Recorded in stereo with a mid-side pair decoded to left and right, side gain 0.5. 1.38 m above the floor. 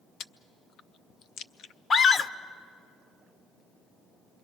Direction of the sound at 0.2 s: 65° left.